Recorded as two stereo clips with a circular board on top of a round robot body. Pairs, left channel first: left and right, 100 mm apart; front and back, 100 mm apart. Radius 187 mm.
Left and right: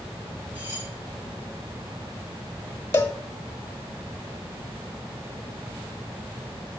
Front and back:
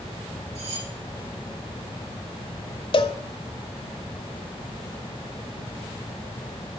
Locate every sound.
0.6 s cutlery clinking: 165° right, 6 m
2.9 s a cowbell: 25° left, 1.2 m